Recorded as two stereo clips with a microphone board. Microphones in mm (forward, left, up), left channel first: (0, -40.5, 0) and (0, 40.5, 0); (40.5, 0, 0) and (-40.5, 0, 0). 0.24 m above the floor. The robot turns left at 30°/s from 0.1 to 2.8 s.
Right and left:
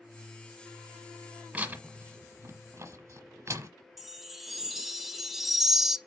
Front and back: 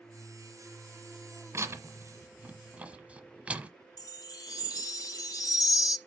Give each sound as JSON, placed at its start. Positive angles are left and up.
{"t": 1.5, "sound": "tearing paper", "azimuth_deg": 155, "distance_m": 1.0}
{"t": 4.0, "sound": "a chime", "azimuth_deg": 5, "distance_m": 0.6}